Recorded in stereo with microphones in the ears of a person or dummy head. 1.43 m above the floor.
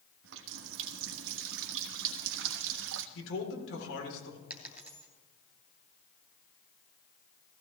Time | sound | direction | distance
0.2 | a running tap | 70° right (ahead or behind) | 1.3 m
3.1 | a man speaking | 65° left (ahead or behind) | 4 m
4.5 | a dropped coin | 10° right (ahead or behind) | 2.5 m